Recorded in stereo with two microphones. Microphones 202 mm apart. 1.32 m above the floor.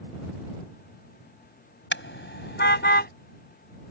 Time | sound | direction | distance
1.9 | a car horn | 70° left (ahead or behind) | ?